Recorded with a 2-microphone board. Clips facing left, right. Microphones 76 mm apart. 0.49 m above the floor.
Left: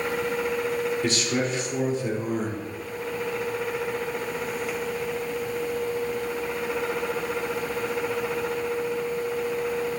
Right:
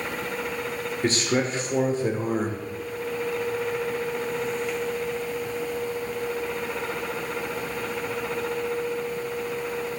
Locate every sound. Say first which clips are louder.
1.0 s a man speaking: right 1 dB; 40° right (ahead or behind), 1.0 m